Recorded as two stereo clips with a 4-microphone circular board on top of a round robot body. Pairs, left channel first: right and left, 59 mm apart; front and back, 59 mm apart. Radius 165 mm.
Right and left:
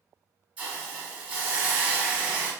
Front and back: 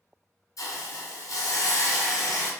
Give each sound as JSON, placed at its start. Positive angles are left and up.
{"t": 0.6, "sound": "a hiss", "azimuth_deg": 20, "distance_m": 1.6}